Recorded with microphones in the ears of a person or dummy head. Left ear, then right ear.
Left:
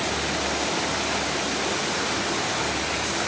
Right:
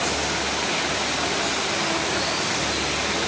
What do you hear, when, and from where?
Only background noise.